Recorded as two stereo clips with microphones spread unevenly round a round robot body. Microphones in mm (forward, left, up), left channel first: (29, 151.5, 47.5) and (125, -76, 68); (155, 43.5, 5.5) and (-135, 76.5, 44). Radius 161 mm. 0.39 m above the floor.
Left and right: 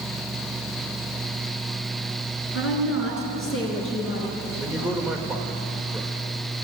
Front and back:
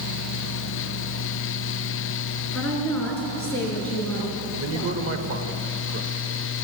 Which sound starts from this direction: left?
A woman speaking, at 2.5 s.